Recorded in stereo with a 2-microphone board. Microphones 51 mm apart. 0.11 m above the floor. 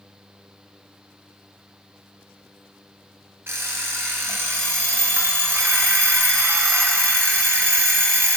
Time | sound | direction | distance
3.5 | an alarm clock | 50° right (ahead or behind) | 1.3 m